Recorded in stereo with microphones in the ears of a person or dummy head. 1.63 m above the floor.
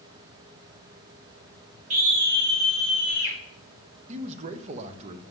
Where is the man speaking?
45° right (ahead or behind), 0.6 m.